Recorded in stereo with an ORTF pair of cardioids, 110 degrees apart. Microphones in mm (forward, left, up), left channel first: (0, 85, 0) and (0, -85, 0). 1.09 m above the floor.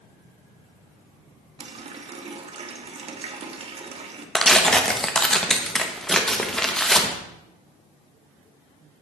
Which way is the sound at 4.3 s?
5° left.